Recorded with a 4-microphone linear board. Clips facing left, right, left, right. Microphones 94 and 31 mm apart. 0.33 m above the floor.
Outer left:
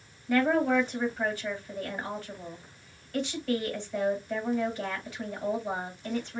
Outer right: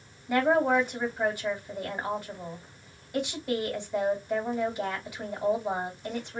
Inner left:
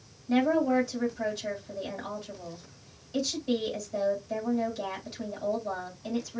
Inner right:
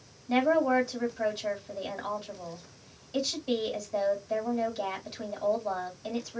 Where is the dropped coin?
I don't hear a dropped coin.